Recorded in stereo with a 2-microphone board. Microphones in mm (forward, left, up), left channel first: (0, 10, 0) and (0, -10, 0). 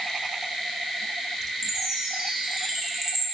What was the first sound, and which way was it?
A chime, 25° right (ahead or behind).